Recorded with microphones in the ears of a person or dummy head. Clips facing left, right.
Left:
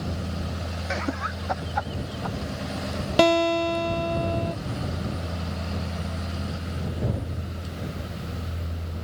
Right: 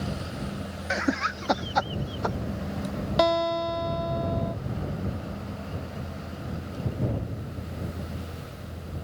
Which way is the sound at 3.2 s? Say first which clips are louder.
Left 4 dB; 35° left (ahead or behind).